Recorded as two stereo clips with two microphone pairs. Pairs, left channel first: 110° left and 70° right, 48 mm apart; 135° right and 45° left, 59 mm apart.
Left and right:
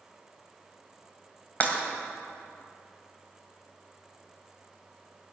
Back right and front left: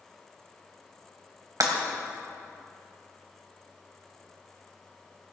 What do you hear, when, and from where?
1.6 s breaking glass: 55° left, 2 m